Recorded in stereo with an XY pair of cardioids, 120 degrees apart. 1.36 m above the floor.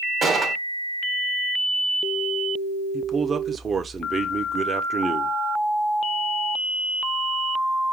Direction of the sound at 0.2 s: 30° right.